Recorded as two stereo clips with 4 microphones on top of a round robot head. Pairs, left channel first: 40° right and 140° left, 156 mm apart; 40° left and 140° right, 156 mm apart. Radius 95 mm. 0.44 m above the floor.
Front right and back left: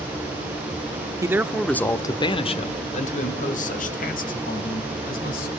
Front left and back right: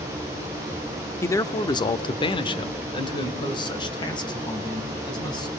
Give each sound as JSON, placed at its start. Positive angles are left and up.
{"t": 1.2, "sound": "a man speaking", "azimuth_deg": 95, "distance_m": 0.9}